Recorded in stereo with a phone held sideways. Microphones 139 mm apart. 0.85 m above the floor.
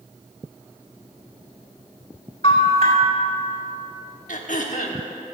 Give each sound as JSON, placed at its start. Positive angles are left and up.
{"t": 2.4, "sound": "a bell", "side_deg": 50, "distance_m": 1.9}
{"t": 4.3, "sound": "throat clearing", "side_deg": 75, "distance_m": 1.3}